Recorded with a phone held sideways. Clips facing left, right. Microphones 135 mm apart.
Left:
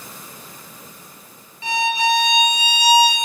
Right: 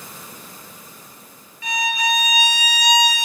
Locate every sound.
1.6 s a violin: 30° left (ahead or behind), 0.8 m